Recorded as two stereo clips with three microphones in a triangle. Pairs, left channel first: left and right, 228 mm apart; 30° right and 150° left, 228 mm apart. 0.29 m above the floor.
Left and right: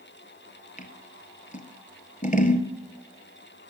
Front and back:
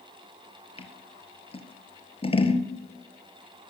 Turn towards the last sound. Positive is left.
turn(degrees=35)